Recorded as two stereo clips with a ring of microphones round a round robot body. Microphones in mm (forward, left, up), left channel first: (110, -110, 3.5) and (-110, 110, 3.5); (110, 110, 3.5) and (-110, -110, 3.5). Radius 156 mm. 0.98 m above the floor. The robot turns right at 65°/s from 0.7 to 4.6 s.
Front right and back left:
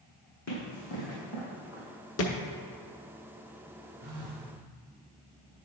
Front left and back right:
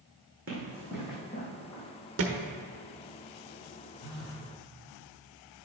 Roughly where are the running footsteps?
Right.